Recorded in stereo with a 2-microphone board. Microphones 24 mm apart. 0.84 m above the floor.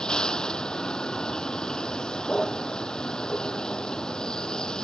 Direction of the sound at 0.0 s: 30° left (ahead or behind).